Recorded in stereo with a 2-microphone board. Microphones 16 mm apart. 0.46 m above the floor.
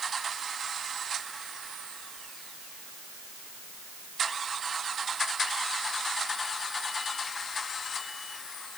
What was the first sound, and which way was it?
Only background noise.